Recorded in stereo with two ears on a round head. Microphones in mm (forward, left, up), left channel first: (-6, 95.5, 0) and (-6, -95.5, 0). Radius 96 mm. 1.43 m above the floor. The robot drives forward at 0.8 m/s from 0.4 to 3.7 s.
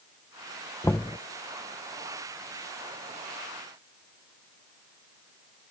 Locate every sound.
0.8 s knocking: 10° left (ahead or behind)